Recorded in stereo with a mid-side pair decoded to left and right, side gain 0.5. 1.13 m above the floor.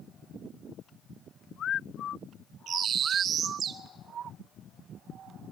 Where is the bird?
55° right, 1.4 m.